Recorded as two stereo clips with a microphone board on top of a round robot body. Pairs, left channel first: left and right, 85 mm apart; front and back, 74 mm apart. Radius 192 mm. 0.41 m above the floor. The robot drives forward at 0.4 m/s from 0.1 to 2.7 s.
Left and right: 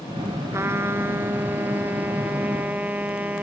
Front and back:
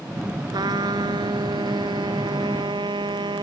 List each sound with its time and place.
0.5 s a trumpet: 150° right; by 3.4 s 165° right